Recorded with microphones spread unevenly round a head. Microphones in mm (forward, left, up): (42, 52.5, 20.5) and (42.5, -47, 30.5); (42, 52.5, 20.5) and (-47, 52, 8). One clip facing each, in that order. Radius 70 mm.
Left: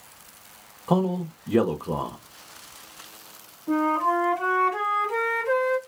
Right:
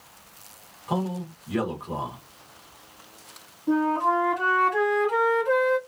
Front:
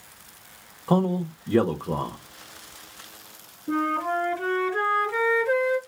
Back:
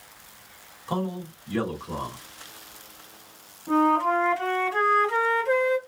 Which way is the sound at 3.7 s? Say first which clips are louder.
Even, back 4 dB; 165° right.